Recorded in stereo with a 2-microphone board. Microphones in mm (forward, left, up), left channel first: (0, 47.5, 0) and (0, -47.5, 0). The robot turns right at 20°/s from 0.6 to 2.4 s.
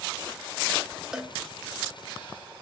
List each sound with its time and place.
1.1 s a cowbell: 5° right (ahead or behind), 0.8 m